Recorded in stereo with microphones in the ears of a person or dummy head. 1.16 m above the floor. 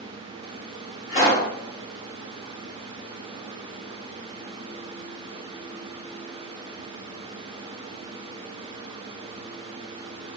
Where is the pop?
45° left (ahead or behind), 1.8 m.